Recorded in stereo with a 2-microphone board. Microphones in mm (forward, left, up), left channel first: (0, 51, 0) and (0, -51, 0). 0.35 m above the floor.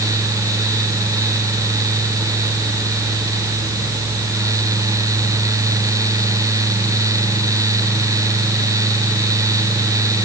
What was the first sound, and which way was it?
Only background noise.